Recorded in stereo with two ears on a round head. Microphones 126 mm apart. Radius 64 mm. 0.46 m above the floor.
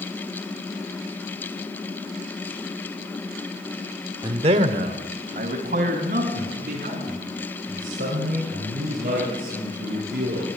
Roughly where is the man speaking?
Right.